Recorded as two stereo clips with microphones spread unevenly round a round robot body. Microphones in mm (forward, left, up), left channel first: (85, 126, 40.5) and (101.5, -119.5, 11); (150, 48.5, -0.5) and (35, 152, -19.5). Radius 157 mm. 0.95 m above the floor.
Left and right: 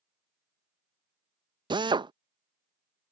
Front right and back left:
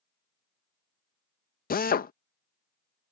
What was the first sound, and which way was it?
A drill, 15° right.